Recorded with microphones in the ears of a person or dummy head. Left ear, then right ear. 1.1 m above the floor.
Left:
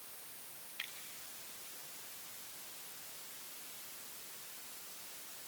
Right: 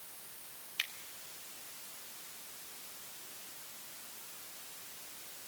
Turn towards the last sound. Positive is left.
turn(degrees=-35)  # may be behind; listen again after turning